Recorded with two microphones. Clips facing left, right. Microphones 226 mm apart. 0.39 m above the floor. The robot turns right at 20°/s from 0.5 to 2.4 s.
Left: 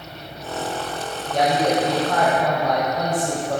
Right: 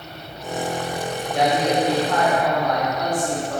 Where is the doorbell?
I don't hear a doorbell.